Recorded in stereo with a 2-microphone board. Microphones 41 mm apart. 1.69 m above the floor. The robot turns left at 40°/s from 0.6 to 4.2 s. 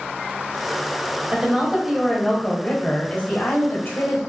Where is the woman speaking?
150° right, 1.4 m; by 4.2 s 95° left, 1.4 m.